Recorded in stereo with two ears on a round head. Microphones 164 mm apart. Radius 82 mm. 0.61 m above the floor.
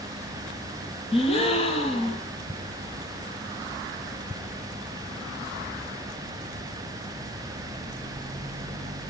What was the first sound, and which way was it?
A gasp, 35° left (ahead or behind).